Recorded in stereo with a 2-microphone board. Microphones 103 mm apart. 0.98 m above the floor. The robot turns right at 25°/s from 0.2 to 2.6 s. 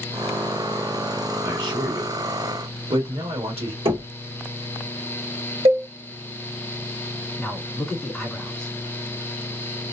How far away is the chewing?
I don't hear chewing.